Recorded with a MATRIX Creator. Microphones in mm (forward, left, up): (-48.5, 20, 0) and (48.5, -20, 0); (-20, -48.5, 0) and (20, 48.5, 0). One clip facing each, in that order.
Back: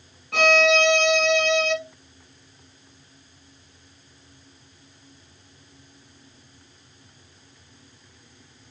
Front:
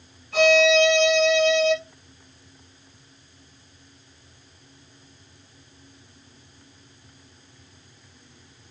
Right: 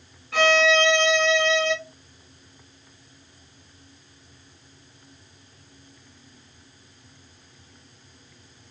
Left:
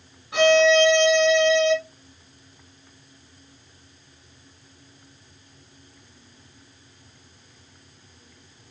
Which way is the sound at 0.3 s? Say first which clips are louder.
Front 2 dB, left 3 dB; 140° left.